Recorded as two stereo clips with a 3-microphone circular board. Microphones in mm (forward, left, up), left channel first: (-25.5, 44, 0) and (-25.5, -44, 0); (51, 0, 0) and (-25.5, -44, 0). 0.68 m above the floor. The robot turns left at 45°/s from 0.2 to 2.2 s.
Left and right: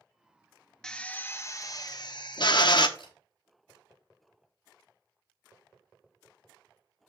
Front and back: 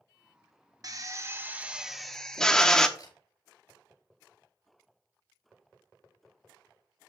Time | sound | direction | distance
0.8 | a drill | 175° left | 0.8 m
3.0 | a camera shutter | 70° left | 5.5 m